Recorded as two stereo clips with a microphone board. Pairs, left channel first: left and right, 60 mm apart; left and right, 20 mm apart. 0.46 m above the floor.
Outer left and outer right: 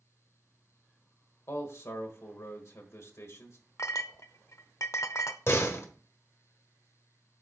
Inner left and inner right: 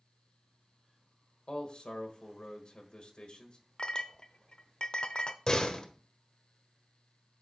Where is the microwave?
No microwave in this recording.